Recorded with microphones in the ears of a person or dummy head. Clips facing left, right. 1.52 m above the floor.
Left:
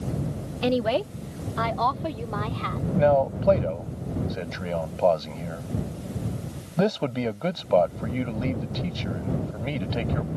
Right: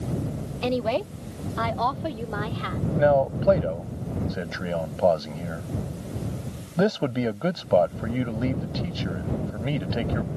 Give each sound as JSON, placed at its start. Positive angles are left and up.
{"t": 0.6, "sound": "a woman speaking", "side_deg": 15}
{"t": 3.0, "sound": "a man speaking", "side_deg": -5}